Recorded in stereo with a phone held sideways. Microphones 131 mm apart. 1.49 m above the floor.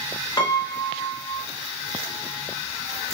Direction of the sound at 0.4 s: 35° left (ahead or behind).